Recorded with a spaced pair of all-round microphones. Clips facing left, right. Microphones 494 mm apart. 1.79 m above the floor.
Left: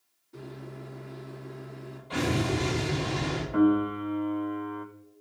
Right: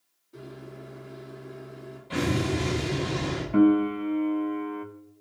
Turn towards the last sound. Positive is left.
turn(degrees=-45)  # may be behind; listen again after turning